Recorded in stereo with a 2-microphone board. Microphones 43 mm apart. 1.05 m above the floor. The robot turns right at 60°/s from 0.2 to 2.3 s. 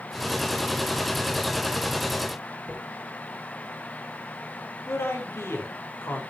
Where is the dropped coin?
30° left (ahead or behind), 10 m.